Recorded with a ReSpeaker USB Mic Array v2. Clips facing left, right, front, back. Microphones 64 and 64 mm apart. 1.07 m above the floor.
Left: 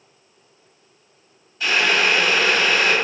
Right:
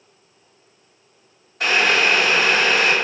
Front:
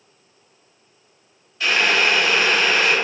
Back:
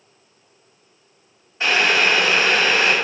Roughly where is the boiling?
Behind right.